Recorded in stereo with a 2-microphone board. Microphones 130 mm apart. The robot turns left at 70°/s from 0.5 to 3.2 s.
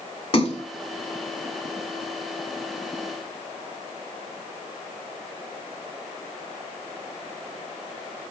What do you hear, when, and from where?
0.3 s a splash: 40° left (ahead or behind), 1.1 m; by 0.6 s 45° left (ahead or behind), 1.1 m